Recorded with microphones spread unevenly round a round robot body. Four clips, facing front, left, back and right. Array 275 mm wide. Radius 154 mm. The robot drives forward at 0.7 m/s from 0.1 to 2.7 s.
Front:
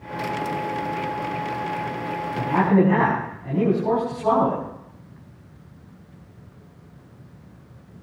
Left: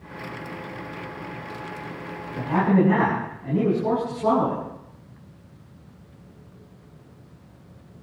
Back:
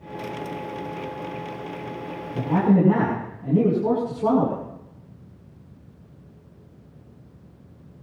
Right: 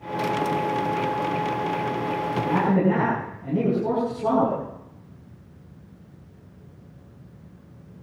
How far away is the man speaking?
About 7.5 m.